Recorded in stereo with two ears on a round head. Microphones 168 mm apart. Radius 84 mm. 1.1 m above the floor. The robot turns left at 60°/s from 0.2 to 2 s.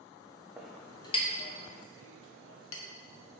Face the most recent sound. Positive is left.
turn(degrees=80)